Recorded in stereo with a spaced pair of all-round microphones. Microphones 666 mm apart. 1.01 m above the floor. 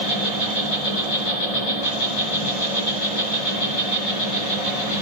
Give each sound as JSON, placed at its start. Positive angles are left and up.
{"t": 0.0, "sound": "an insect", "side_deg": 60, "distance_m": 5.0}